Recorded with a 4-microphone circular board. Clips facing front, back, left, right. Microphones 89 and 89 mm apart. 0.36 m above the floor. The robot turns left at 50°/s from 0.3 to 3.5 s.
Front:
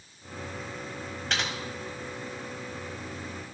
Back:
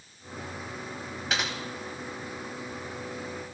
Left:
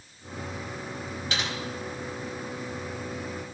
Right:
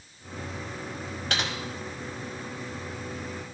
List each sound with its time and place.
1.3 s typing on a keyboard: 95° right, 1.4 m; by 1.5 s 105° right, 1.4 m